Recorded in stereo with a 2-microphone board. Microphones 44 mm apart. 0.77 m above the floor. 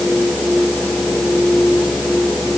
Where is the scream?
I don't hear a scream.